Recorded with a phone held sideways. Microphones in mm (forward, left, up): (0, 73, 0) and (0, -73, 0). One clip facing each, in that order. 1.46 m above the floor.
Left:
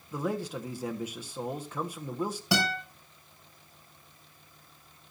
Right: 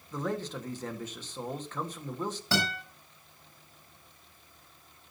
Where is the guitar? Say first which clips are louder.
Left 3 dB; 15° left (ahead or behind), 7.5 m.